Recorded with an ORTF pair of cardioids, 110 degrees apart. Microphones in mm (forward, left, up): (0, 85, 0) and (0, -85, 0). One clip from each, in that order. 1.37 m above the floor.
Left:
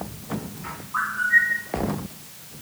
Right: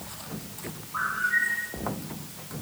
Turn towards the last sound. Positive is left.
turn(degrees=40)